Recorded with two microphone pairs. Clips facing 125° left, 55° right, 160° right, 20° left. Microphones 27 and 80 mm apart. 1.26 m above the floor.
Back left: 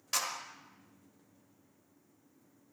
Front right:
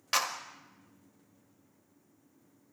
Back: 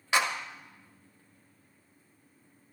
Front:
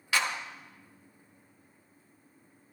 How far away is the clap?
About 1.9 m.